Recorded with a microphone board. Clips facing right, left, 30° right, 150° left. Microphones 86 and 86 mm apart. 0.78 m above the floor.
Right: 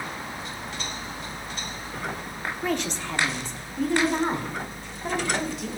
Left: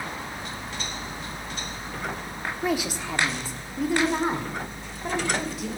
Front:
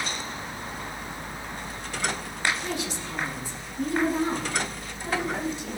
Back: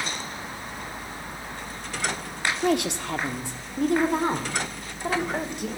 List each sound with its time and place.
2.6 s a woman speaking: 170° left, 1.0 m; by 5.7 s 175° left, 3 m